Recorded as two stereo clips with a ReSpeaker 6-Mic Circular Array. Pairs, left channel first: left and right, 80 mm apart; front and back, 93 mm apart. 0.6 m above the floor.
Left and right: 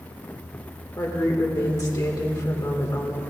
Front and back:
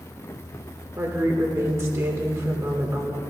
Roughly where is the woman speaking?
Behind left.